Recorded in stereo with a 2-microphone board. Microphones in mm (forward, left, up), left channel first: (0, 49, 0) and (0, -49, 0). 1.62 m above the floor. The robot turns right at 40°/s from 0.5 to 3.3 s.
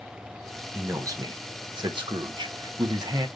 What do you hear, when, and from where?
0.7 s a man speaking: 150° right, 0.8 m; by 3.3 s 45° right, 0.8 m